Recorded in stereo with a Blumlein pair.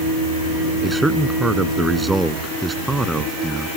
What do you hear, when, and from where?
0.8 s a man speaking: 5° right